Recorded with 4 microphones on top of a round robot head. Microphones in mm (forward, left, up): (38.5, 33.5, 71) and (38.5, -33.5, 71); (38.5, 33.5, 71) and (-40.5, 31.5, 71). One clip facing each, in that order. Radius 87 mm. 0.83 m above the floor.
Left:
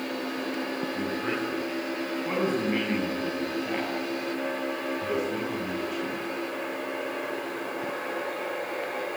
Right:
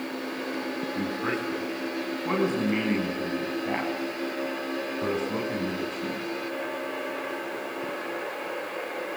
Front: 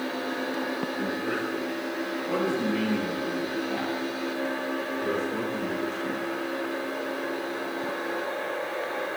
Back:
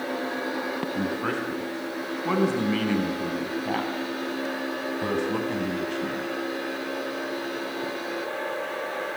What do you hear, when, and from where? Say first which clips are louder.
0.9 s a man speaking: right 1 dB, back 1 dB; 165° right, 9.5 m; by 6.3 s 150° right, 7 m